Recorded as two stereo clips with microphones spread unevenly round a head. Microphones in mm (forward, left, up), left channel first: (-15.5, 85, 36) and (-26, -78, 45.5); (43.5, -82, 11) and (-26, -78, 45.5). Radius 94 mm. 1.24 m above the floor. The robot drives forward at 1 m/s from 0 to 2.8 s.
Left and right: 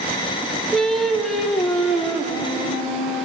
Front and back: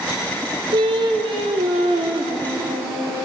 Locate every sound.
0.7 s singing: 175° left, 0.8 m; by 3.3 s straight behind, 3 m